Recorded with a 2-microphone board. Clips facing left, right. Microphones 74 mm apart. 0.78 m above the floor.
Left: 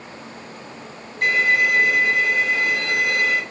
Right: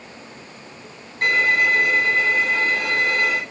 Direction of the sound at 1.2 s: 45° right (ahead or behind).